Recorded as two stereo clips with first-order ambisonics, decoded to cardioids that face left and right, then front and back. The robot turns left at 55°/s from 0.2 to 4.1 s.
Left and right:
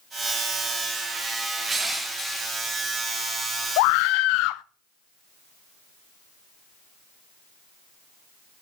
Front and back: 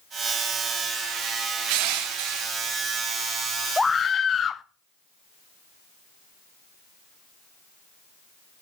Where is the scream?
85° left, 0.6 m; by 4.6 s 65° left, 0.6 m.